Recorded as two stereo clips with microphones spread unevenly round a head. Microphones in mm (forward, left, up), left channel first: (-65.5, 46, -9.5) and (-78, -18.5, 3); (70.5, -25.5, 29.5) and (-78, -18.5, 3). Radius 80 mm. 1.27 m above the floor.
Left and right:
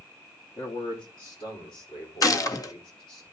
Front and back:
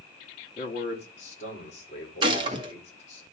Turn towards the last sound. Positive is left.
turn(degrees=115)